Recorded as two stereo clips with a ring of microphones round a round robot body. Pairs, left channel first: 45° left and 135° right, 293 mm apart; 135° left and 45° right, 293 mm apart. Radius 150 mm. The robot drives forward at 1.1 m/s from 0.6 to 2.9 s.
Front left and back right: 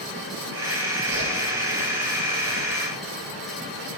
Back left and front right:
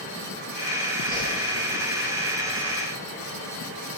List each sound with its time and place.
1.1 s a whoosh: 160° right, 8.5 m